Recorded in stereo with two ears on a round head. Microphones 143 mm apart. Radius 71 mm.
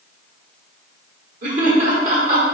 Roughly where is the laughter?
Right.